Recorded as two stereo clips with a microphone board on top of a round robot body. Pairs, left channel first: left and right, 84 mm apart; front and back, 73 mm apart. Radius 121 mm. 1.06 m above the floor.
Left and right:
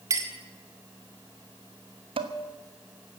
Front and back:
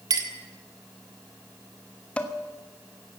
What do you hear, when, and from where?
0.1 s a clink: 145° right, 1.7 m
2.2 s dishes clattering: 75° right, 1.2 m